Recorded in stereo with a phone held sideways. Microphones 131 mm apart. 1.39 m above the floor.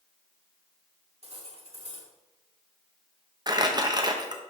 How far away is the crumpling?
About 1.1 m.